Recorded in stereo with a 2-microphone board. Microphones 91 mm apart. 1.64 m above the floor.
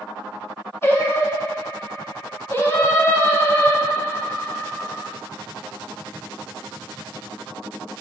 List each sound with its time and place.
0.8 s singing: 25° left (ahead or behind), 0.6 m